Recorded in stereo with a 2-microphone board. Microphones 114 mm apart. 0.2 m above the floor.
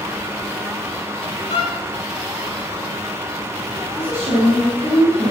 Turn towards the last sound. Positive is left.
turn(degrees=-50)  # may be behind; listen again after turning